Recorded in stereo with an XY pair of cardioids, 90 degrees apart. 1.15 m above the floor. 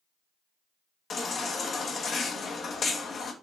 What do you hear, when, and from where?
1.1 s a baby crying: 55° left, 1.0 m